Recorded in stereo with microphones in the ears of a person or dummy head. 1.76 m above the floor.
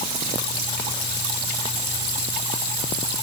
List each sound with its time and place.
Only background noise.